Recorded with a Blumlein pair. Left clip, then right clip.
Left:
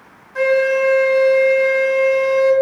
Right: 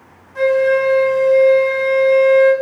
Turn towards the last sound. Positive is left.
turn(degrees=15)